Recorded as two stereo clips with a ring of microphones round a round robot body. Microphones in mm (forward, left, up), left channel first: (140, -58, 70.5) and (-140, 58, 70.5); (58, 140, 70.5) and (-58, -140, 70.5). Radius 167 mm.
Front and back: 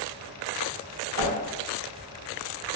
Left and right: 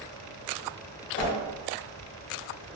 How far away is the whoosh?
About 0.6 m.